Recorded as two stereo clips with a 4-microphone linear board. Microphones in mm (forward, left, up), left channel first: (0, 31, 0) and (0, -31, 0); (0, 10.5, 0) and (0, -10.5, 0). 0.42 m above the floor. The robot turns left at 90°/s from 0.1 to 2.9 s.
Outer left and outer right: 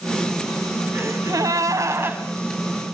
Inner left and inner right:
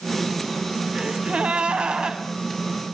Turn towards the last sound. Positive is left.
turn(degrees=140)